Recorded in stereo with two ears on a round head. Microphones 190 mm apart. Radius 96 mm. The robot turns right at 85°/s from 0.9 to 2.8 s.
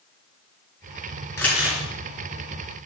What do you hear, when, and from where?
1.4 s crumpling: 165° left, 4 m; by 1.8 s 160° right, 4 m